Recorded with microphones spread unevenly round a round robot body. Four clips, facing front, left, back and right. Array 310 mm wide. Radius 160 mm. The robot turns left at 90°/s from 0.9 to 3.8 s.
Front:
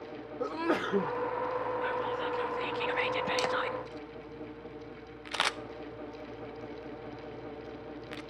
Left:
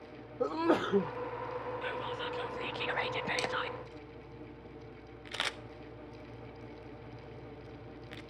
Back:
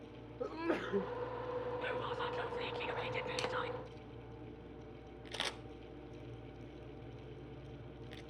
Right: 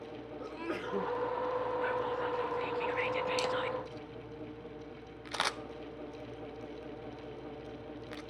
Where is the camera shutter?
Straight ahead, 0.9 m; by 8.2 s 35° right, 0.9 m.